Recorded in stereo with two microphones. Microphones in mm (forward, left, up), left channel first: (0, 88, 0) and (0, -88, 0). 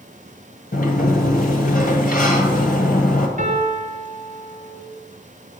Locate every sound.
0.7 s a sliding door: 50° left (ahead or behind), 1.5 m
3.4 s a piano: 45° right (ahead or behind), 2 m